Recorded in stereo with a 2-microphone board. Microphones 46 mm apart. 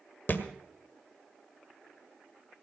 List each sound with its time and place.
0.3 s a thud: 45° left (ahead or behind), 1.6 m